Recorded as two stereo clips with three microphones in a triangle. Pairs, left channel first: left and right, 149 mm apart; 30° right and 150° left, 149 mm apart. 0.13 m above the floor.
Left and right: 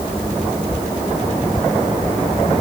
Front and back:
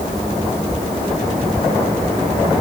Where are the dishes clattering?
I don't hear dishes clattering.